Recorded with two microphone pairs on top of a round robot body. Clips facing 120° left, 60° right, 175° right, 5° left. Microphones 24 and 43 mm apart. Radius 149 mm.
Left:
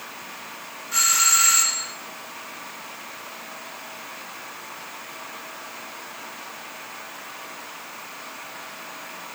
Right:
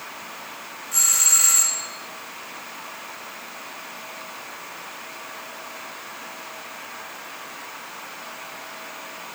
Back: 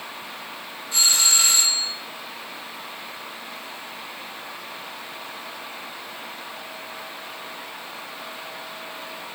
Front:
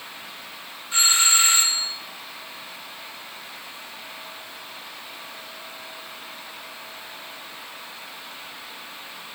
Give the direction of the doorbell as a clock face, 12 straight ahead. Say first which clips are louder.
Left 1 dB, front 2 dB; 10 o'clock.